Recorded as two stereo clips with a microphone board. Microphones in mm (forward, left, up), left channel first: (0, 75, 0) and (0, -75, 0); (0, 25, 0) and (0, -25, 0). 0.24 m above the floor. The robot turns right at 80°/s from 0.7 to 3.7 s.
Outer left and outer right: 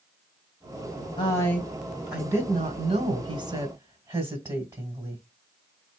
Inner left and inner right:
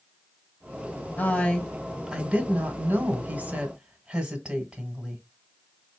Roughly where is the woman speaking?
Behind left.